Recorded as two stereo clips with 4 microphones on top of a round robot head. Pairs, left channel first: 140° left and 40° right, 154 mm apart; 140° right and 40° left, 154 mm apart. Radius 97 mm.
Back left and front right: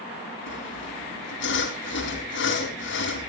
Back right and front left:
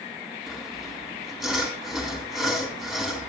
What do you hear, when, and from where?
0.5 s sawing: 130° left, 3.5 m